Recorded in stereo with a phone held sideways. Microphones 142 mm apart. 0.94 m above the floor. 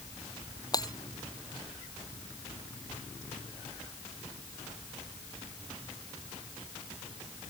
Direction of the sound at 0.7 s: 30° left (ahead or behind).